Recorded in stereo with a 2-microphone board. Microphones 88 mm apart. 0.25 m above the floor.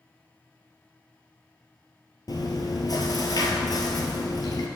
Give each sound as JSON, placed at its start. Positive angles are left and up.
{"t": 2.3, "sound": "chewing", "side_deg": 50, "distance_m": 0.9}